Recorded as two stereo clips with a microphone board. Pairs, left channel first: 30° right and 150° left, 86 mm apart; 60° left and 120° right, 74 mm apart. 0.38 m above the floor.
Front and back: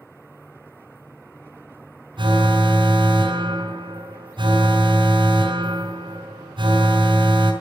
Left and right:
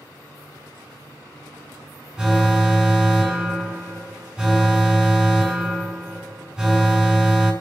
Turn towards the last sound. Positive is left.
turn(degrees=160)